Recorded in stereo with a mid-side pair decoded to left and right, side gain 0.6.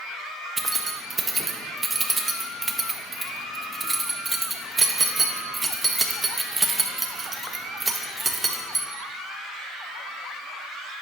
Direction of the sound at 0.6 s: 20° right.